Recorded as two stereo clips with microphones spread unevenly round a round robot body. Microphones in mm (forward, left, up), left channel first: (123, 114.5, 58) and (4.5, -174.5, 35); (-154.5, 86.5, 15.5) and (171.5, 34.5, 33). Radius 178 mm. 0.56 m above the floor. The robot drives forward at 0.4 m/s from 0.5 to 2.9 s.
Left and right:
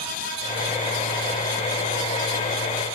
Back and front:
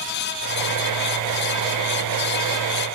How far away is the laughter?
No laughter in this recording.